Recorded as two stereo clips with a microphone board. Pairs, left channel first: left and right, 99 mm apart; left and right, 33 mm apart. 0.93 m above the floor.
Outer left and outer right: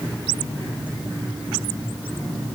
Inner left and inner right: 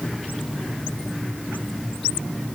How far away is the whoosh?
I don't hear a whoosh.